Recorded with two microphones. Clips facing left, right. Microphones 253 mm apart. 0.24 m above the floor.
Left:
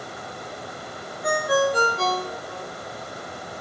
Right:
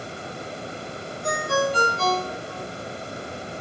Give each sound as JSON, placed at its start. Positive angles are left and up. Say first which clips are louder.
{"t": 1.2, "sound": "a ringtone", "louder": "left 3 dB", "side_deg": 65, "distance_m": 2.0}